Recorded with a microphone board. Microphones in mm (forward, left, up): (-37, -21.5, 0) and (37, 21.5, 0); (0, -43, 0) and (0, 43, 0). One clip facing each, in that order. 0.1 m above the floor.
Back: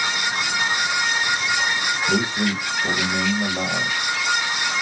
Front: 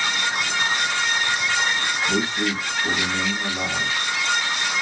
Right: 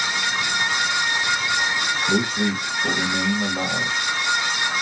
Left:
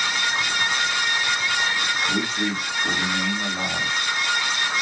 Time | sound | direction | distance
2.1 | a man speaking | 125° right | 3 m